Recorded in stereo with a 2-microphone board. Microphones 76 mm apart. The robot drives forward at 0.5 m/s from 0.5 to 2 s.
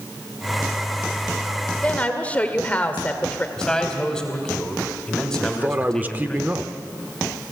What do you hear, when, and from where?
1.8 s a woman speaking: 20° left (ahead or behind), 1.5 m
3.6 s a man speaking: 10° left (ahead or behind), 3 m
5.4 s a man speaking: 25° right (ahead or behind), 0.8 m